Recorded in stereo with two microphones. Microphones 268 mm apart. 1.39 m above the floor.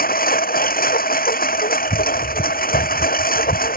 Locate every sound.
0.0 s a lawn mower: 35° left (ahead or behind)